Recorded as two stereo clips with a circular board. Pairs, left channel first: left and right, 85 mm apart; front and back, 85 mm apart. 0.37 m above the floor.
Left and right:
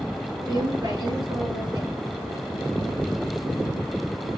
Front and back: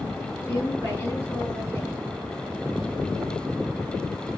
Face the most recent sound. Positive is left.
turn(degrees=-65)